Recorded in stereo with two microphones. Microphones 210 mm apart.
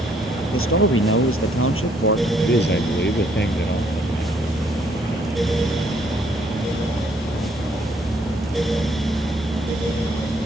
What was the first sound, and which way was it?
A man speaking, 85° left.